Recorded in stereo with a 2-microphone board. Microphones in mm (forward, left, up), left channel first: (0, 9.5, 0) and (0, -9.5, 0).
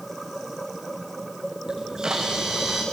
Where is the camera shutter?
35° right (ahead or behind), 7.5 m.